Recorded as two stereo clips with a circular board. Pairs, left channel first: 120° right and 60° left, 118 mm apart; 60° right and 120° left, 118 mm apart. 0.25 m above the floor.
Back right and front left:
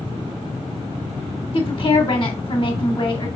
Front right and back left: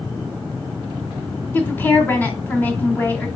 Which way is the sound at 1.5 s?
130° right.